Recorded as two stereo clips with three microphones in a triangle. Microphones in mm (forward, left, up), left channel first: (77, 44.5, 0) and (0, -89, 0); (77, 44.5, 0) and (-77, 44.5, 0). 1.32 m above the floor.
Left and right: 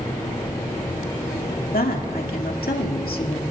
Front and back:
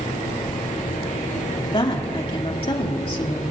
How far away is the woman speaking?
About 2 m.